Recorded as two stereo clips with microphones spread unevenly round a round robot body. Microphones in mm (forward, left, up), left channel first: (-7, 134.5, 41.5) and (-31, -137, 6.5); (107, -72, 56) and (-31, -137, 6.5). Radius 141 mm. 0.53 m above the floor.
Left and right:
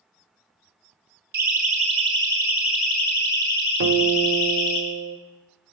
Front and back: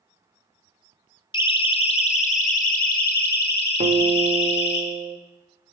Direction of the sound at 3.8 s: 120° right.